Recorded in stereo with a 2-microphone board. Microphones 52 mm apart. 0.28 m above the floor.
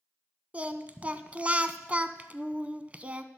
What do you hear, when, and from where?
0.5 s singing: 30° right (ahead or behind), 0.6 m